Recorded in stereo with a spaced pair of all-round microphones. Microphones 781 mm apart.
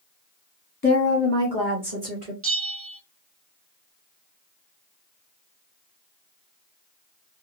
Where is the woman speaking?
15° left (ahead or behind), 0.6 m; by 2.3 s 50° right (ahead or behind), 1.4 m.